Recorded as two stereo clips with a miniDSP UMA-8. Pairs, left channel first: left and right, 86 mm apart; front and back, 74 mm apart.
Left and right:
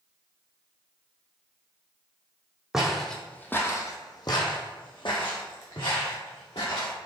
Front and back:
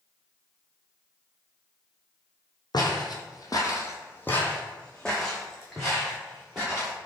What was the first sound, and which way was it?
Footsteps, 5° right.